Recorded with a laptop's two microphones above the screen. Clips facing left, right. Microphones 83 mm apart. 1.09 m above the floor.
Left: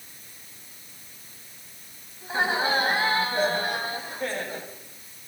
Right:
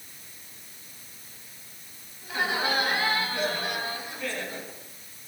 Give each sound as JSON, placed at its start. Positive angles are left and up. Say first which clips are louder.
{"t": 2.2, "sound": "laughter", "louder": "left 3 dB", "side_deg": 30, "distance_m": 8.0}